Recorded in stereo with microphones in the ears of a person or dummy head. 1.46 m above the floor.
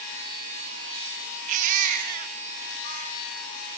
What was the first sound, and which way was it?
A baby crying, 35° right (ahead or behind).